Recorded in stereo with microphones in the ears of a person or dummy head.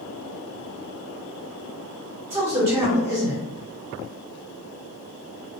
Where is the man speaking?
20° right (ahead or behind), 0.9 m.